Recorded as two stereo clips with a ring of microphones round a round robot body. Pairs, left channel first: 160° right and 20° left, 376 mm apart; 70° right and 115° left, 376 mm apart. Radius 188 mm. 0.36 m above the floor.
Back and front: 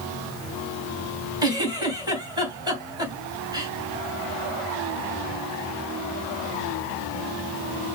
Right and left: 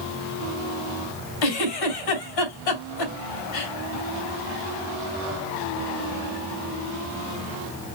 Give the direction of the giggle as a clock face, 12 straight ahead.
2 o'clock.